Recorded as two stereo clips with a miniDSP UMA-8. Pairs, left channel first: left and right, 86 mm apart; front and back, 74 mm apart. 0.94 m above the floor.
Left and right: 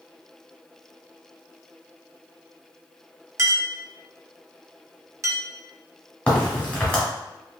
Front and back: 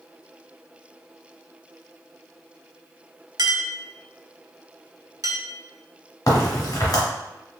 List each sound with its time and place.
3.4 s a clink: 145° right, 0.6 m
6.3 s a crack: 15° left, 1.3 m